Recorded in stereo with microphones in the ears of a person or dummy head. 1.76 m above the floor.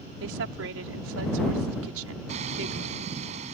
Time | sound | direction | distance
0.2 | a woman speaking | 75° right (ahead or behind) | ?
2.3 | hammering | 40° right (ahead or behind) | ?